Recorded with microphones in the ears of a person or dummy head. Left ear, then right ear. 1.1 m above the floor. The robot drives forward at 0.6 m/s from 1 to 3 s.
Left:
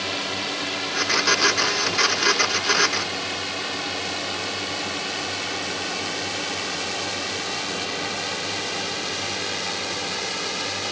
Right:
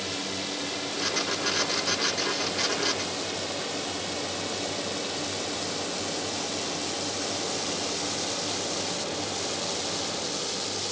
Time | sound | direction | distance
0.0 | a drone | 45° left (ahead or behind) | ?